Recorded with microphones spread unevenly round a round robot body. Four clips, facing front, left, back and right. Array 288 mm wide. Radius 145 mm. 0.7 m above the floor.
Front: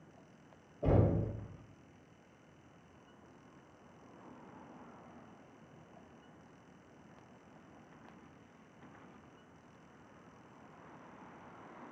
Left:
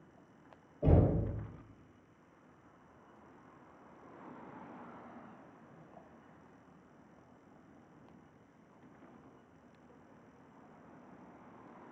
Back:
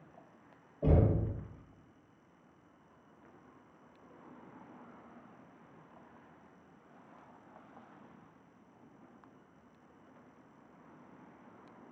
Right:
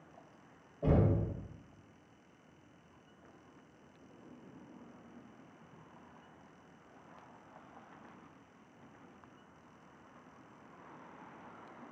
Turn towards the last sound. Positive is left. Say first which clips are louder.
# left 1 dB, back 1 dB
turn(degrees=170)